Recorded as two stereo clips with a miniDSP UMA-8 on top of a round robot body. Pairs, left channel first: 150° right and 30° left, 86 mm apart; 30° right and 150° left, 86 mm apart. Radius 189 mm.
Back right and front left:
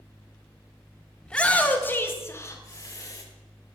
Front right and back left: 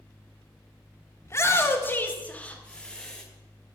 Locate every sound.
1.2 s a shout: 75° right, 1.7 m; by 3.2 s 110° right, 2.5 m